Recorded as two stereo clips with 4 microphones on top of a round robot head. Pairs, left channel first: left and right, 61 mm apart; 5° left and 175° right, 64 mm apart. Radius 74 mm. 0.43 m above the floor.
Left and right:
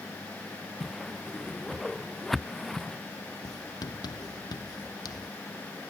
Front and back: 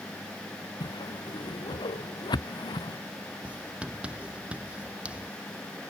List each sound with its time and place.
0.8 s a whoosh: straight ahead
3.4 s writing: 115° left